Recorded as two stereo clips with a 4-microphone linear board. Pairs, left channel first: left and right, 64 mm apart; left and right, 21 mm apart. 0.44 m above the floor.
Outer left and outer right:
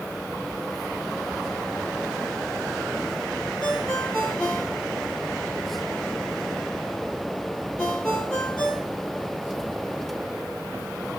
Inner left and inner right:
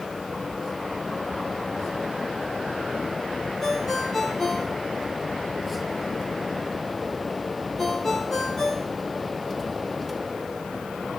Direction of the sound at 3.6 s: 15° left (ahead or behind).